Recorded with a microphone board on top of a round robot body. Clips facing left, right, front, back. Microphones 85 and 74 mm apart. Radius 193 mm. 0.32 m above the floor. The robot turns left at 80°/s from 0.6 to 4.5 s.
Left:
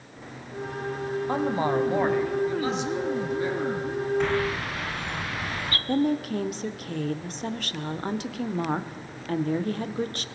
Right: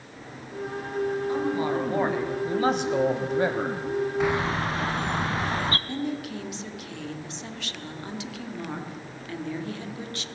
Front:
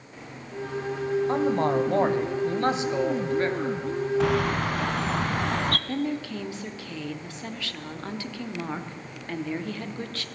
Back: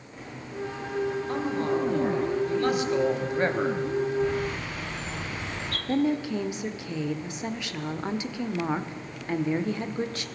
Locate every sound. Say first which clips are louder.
1.3 s a man speaking: left 1 dB, front 6 dB; 60° left, 3 m; by 3.8 s 140° right, 3 m
4.2 s a bird: right 1 dB, front 4 dB; 10° right, 0.7 m; by 5.8 s 30° right, 0.7 m
5.9 s a woman speaking: left 6 dB, back 4 dB; 115° left, 1.7 m